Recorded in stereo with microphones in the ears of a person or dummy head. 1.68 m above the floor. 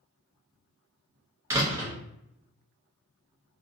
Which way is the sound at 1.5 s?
15° right (ahead or behind).